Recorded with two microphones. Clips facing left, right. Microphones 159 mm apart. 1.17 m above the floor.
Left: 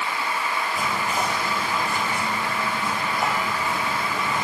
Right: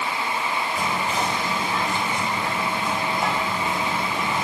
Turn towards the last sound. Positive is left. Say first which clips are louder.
# right 1 dB
turn(degrees=10)  # may be behind; listen again after turning